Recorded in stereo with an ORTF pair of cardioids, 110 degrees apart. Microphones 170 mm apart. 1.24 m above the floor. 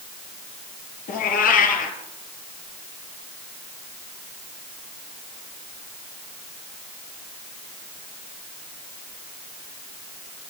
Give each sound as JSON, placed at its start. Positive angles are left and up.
{"t": 1.1, "sound": "a cat meowing", "azimuth_deg": 60, "distance_m": 4.0}